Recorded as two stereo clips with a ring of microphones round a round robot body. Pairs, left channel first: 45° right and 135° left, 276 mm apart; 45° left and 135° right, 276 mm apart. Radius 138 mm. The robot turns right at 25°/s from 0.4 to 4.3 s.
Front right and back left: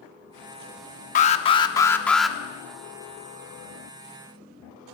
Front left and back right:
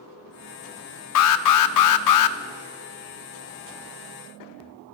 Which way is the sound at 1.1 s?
15° left.